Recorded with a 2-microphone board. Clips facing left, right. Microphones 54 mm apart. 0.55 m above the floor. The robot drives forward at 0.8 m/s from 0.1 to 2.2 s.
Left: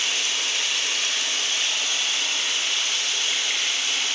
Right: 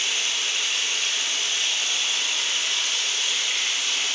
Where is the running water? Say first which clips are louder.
Left 1 dB; 65° left (ahead or behind), 1.4 m; by 4.2 s 45° left (ahead or behind), 1.8 m.